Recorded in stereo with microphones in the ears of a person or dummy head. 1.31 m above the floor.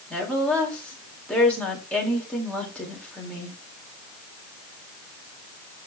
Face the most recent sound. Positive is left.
turn(degrees=5)  # may be behind; listen again after turning